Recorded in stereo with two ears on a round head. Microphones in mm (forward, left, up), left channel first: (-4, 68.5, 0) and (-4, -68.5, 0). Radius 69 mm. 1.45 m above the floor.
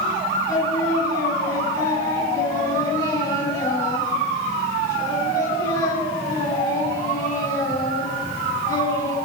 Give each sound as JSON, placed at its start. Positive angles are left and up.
{"t": 0.5, "sound": "singing", "side_deg": 20, "distance_m": 7.0}